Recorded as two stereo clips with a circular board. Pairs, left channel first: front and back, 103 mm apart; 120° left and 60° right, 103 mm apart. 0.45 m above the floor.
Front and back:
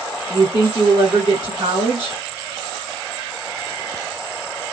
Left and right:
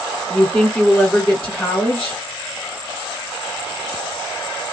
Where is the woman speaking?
155° right, 1.7 m.